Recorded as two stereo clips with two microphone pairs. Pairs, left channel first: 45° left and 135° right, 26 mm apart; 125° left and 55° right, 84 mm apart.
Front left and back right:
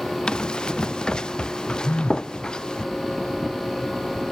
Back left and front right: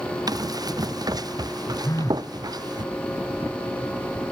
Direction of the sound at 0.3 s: 10° right.